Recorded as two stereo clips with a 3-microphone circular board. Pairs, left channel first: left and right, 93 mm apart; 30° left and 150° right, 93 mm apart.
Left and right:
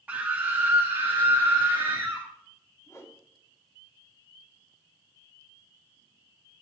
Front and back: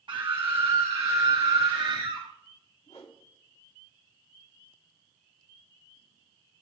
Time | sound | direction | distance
0.1 | a scream | 160° right | 1.1 m
2.9 | a whoosh | 35° left | 2 m